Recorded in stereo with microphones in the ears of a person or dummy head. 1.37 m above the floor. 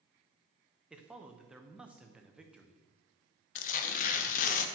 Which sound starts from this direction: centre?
A man speaking, at 0.9 s.